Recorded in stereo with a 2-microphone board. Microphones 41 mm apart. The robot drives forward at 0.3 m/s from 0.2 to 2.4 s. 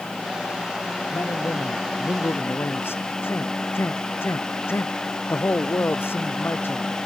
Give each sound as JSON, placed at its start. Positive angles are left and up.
{"t": 1.1, "sound": "a man speaking", "side_deg": 70}